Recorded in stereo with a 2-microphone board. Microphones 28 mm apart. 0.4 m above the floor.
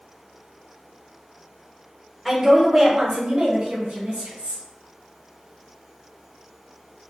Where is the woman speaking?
Centre (ahead or behind), 0.9 m; by 4.6 s 55° right (ahead or behind), 1.6 m.